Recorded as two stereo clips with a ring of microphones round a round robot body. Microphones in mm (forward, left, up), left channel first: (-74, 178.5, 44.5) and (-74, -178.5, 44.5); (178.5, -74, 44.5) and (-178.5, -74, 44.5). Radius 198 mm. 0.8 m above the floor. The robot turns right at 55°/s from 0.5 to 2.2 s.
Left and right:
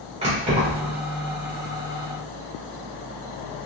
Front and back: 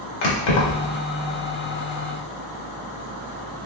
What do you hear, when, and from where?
0.2 s keys jangling: 15° right, 1.4 m; by 0.9 s 10° left, 1.4 m